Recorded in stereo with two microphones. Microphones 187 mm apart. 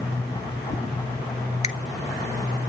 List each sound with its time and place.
1.6 s a finger snap: 35° left (ahead or behind), 1.2 m